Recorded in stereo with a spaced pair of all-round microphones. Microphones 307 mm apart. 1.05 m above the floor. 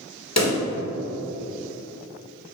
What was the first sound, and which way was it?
A pop, 55° left (ahead or behind).